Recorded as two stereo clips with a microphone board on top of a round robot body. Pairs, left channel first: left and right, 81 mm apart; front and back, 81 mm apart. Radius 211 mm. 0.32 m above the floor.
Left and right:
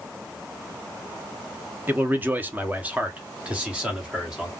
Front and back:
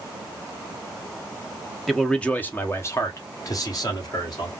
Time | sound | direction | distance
1.9 | a man speaking | 85° right | 1.2 m